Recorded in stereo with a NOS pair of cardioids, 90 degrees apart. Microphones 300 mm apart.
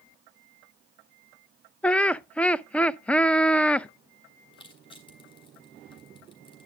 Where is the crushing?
15° left, 4.5 m.